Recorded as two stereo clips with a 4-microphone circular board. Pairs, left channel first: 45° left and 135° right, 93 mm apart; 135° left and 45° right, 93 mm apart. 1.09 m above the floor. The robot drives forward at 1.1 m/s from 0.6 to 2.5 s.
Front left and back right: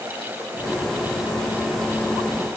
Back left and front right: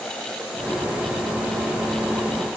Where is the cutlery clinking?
I don't hear cutlery clinking.